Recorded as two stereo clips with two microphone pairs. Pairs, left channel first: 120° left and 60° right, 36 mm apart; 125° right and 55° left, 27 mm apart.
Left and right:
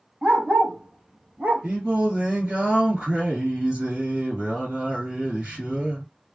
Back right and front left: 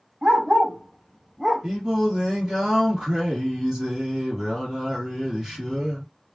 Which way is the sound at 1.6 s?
5° right.